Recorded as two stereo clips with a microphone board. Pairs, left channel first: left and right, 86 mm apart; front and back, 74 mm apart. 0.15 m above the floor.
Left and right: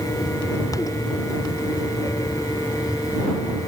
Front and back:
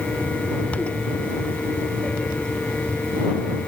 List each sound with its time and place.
Only background noise.